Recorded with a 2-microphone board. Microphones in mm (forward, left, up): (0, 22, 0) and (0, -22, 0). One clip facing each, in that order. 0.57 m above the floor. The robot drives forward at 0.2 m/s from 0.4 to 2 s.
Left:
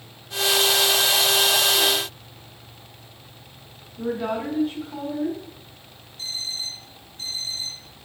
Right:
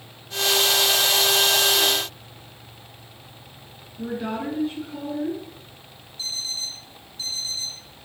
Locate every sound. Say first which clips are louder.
4.0 s a woman speaking: left 2 dB; 80° left, 4.5 m
6.2 s an alarm clock: even; 55° left (ahead or behind), 5 m